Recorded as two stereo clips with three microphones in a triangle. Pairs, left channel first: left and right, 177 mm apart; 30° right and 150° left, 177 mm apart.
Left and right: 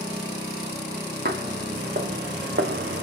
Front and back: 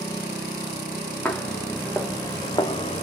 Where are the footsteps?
115° right, 1.5 m; by 3.0 s 80° right, 0.7 m.